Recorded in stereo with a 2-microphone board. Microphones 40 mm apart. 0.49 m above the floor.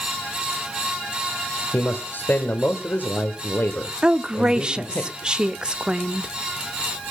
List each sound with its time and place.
1.7 s a man speaking: 55° left (ahead or behind), 1.6 m
4.0 s a woman speaking: 25° right (ahead or behind), 0.7 m